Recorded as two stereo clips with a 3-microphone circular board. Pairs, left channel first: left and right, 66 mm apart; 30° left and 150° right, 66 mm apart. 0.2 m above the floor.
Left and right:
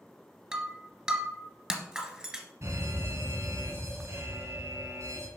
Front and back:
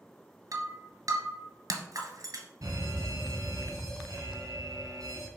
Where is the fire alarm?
125° right, 5.5 m.